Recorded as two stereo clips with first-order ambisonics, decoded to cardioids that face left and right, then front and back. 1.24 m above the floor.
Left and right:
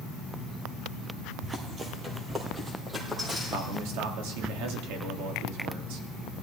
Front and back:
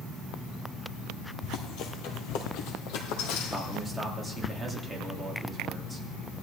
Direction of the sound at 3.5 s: 95° right.